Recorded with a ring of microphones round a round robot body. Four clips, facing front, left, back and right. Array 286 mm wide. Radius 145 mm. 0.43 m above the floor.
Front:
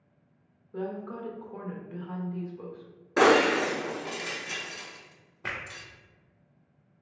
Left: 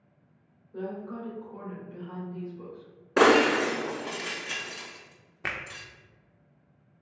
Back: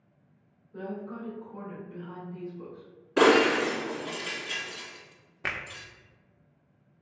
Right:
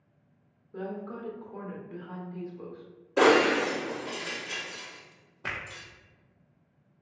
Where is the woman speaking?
30° right, 1.0 m.